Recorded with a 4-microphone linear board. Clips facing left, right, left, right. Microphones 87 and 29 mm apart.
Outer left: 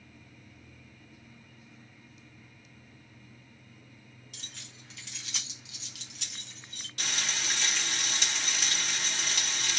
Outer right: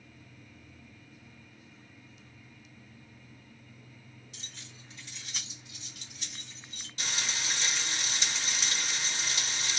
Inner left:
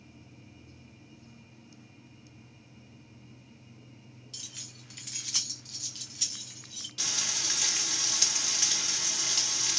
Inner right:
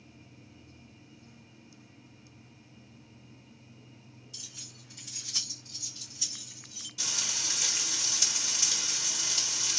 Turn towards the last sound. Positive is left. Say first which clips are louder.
# outer left 1 dB, inner left 1 dB
turn(degrees=60)  # may be behind; listen again after turning